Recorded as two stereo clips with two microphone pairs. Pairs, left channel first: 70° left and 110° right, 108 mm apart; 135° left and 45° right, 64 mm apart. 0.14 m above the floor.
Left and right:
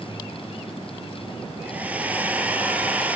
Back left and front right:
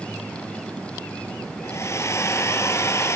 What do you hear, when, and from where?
1.6 s a hair dryer: 175° left, 1.6 m